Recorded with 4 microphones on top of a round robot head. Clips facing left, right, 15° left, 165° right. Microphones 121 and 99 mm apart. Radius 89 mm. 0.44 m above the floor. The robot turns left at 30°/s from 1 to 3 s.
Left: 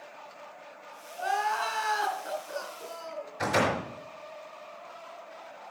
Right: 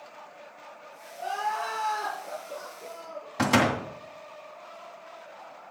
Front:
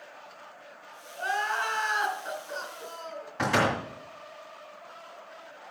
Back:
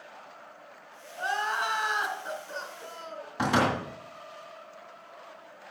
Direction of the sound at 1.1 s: 135° left.